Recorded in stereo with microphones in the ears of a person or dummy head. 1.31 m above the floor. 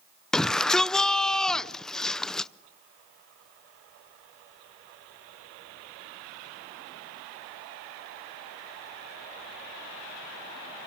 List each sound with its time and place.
0.3 s a shout: 10° left (ahead or behind), 0.6 m